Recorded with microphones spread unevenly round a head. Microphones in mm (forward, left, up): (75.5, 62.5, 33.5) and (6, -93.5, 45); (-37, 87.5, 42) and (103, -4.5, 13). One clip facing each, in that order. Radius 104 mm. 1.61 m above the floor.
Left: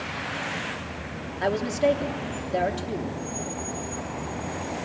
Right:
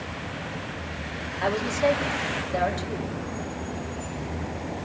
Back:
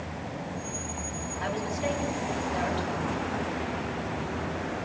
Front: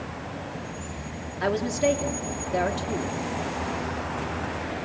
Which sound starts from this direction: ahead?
A woman speaking, at 1.4 s.